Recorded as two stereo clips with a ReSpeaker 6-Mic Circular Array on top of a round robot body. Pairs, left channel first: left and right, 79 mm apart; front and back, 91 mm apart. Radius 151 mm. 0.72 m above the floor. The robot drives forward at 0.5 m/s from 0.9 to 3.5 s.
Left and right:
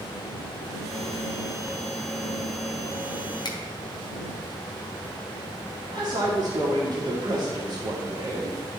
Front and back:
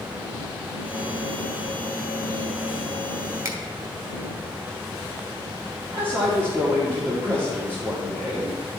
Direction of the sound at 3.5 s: 120° left.